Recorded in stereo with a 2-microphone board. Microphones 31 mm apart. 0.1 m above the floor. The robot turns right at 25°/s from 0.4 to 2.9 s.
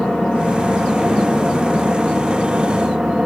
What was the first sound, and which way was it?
An engine running, 155° left.